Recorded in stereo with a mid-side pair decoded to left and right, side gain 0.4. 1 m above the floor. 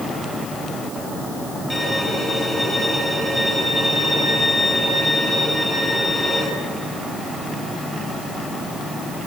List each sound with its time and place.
1.7 s a violin: 5° left, 9 m